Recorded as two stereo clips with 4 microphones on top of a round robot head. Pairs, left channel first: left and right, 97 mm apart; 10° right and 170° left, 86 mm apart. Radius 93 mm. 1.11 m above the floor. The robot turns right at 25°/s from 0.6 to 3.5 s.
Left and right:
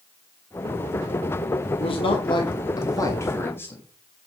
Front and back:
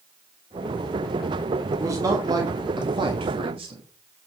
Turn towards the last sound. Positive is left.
turn(degrees=155)